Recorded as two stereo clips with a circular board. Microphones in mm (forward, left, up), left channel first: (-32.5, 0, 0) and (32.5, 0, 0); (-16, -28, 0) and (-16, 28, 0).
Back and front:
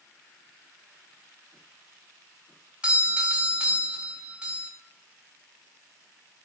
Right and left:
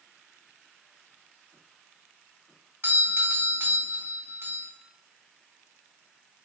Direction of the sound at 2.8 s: 65° left.